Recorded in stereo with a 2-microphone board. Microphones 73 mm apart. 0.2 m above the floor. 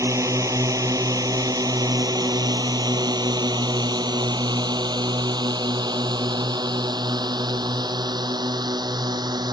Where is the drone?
50° right (ahead or behind); by 9.5 s 70° right (ahead or behind).